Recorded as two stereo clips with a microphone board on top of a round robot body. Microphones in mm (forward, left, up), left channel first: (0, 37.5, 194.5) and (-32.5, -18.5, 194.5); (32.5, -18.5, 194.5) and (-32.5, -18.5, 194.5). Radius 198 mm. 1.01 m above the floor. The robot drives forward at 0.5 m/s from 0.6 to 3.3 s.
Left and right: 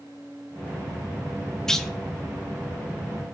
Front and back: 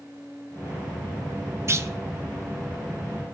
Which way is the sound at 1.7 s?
140° left.